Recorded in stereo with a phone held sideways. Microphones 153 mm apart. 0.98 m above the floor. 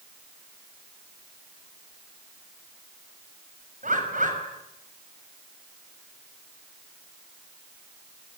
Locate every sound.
3.8 s a bird: 60° right (ahead or behind), 5.5 m